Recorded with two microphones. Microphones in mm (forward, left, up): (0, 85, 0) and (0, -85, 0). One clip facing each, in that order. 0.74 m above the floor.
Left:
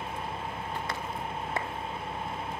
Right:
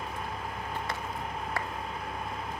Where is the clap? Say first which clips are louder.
Left 2 dB; 20° left (ahead or behind), 1.3 m.